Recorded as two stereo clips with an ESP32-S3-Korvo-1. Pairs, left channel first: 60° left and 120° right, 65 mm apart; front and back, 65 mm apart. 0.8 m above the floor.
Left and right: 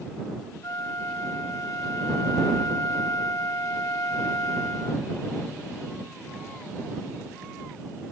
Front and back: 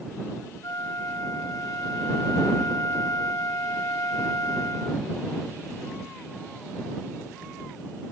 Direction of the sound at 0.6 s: 30° left.